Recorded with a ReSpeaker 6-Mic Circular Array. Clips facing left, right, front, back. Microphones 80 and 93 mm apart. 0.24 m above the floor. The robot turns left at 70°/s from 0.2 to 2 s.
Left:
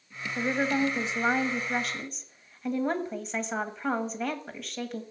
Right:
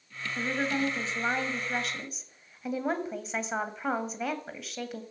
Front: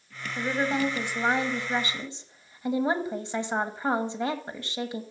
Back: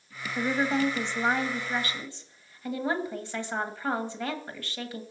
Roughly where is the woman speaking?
Left.